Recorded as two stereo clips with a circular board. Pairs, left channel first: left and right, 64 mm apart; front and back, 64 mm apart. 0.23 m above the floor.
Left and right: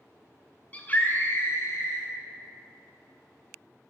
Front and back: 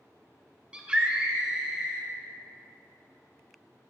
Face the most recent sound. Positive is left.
turn(degrees=100)